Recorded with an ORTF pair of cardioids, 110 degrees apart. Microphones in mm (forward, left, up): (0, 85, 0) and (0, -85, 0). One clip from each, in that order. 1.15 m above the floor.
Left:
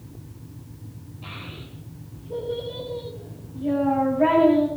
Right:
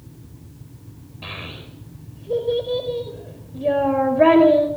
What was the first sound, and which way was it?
A child speaking, 70° right.